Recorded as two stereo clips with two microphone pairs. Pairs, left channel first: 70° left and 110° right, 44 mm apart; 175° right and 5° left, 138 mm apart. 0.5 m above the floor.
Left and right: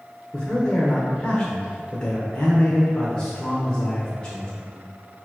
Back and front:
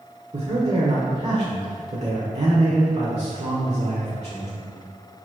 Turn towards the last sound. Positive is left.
turn(degrees=10)